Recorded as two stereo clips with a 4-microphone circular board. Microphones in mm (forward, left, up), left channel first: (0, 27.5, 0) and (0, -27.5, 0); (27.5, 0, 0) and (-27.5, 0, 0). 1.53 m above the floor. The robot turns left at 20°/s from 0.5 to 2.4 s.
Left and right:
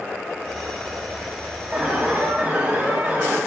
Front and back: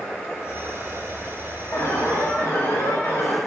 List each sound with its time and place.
1.7 s an alarm: 20° right, 2 m; by 3.4 s 35° right, 2 m